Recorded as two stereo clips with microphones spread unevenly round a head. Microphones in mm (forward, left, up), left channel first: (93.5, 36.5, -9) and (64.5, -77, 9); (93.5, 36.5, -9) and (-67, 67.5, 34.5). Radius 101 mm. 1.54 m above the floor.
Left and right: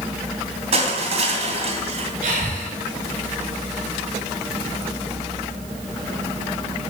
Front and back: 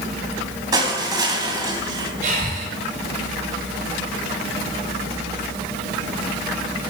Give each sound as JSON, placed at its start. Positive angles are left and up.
{"t": 0.7, "sound": "crushing", "azimuth_deg": -130, "distance_m": 3.0}
{"t": 2.2, "sound": "breathing", "azimuth_deg": -140, "distance_m": 7.0}